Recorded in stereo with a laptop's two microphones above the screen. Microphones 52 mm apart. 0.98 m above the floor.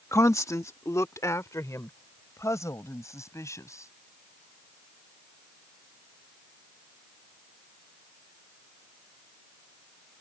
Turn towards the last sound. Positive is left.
turn(degrees=80)